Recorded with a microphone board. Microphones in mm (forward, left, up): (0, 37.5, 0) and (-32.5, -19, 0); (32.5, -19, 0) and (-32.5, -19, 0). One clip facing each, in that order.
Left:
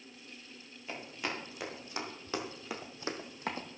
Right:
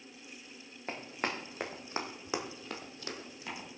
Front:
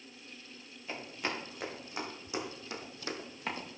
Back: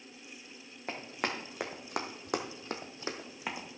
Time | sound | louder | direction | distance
0.9 | running footsteps | right 2 dB, back 2 dB | 155° right | 3.5 m